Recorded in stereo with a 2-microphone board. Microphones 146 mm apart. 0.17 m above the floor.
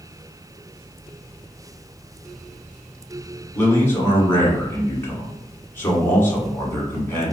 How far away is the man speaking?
About 1.3 m.